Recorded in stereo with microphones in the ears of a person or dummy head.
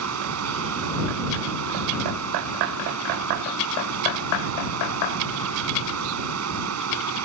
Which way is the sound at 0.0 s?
90° right.